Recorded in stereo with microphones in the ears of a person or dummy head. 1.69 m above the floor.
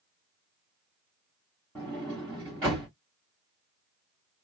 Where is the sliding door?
5° left (ahead or behind), 1.3 m.